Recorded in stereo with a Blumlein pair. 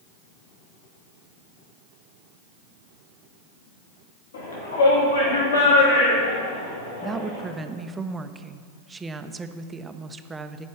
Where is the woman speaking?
15° right, 0.6 m.